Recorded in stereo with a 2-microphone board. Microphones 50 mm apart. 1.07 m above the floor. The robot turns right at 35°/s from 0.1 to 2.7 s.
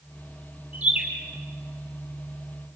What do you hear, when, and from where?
0.7 s a bird: 35° right (ahead or behind), 7.5 m; by 1.0 s 25° right (ahead or behind), 7.5 m